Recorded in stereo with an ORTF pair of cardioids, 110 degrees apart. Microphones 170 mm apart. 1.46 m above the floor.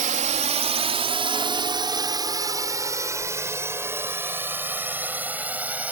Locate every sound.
0.0 s a drone: 50° right; by 5.9 s 10° right